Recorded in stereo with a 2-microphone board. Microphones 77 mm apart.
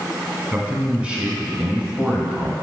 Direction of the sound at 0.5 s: 15° right (ahead or behind).